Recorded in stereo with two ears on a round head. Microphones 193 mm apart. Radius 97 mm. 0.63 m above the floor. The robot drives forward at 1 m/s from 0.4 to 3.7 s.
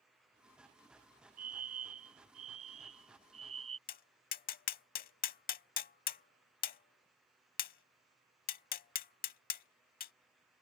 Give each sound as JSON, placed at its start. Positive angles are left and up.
{"t": 1.4, "sound": "a fire alarm", "side_deg": -45}
{"t": 3.9, "sound": "tapping", "side_deg": 40}